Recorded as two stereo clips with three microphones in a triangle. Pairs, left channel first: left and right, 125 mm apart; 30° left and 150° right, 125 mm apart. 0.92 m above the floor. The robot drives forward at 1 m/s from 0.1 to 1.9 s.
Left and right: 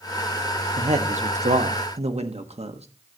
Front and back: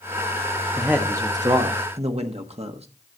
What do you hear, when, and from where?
0.8 s a man speaking: 65° right, 1.3 m; by 2.9 s 120° right, 1.3 m